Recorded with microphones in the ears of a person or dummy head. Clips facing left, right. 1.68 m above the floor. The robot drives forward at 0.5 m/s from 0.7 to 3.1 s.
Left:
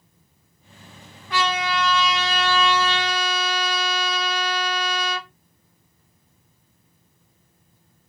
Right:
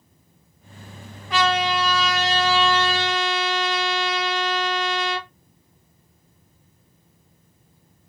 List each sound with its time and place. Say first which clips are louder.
1.3 s a trumpet: right 3 dB; 10° right (ahead or behind), 1.2 m; by 5.3 s 5° right (ahead or behind), 2 m